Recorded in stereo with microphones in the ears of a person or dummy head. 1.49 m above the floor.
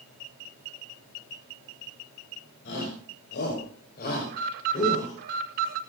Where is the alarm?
55° right (ahead or behind), 6.5 m.